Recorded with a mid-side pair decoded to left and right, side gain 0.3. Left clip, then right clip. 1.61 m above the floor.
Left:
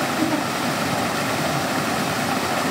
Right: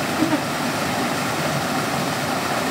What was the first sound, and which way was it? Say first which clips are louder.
A giggle: right 1 dB; 30° right.